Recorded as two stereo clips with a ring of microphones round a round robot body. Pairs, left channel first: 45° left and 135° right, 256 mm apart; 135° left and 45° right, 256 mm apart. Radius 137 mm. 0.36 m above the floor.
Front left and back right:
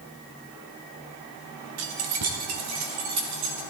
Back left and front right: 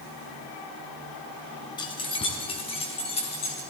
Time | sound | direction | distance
1.8 | keys jangling | 155° right | 1.6 m